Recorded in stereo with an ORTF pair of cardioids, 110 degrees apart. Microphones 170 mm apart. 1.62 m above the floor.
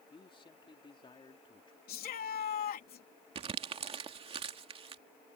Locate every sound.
0.1 s a man speaking: 30° left
1.9 s a shout: 60° left
3.4 s crumpling: 35° right